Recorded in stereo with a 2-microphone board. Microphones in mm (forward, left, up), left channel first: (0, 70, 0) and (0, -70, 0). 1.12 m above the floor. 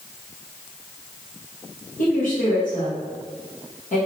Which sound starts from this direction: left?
A woman speaking, at 2.0 s.